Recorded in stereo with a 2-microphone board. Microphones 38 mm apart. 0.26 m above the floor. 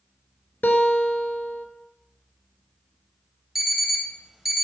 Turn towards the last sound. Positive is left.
turn(degrees=-5)  # may be behind; listen again after turning